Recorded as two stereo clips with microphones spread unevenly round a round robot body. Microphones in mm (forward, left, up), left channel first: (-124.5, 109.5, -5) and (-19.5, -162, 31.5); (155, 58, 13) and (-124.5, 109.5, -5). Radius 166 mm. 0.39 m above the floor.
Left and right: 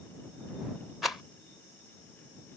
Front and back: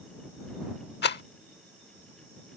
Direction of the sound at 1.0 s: 30° left.